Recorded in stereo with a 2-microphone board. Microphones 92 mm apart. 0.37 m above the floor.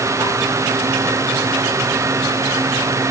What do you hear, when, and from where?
Only background noise.